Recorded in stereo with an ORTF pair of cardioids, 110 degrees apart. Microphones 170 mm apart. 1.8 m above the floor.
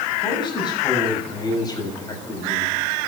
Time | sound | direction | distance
0.2 | a man speaking | 30° left | 6 m